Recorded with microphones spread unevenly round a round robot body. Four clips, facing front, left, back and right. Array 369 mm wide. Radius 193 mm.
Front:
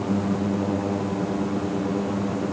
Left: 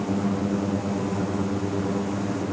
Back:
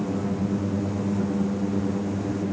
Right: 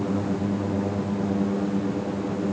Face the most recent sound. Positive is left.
No sound to turn to.